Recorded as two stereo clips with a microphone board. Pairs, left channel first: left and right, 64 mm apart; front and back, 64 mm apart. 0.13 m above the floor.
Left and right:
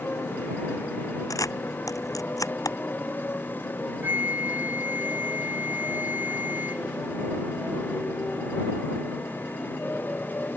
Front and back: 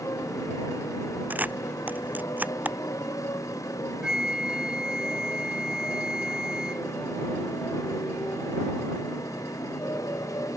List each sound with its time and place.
0.0 s a motorcycle: 30° left
1.3 s a camera shutter: 115° left
4.0 s a flute: 110° right